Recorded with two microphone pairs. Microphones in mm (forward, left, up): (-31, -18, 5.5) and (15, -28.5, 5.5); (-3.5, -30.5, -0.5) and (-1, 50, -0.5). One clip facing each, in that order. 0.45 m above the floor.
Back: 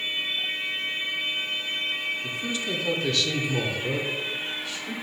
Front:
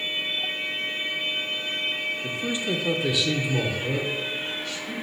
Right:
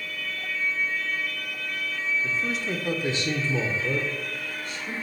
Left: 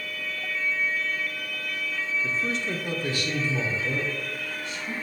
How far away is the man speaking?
About 0.8 m.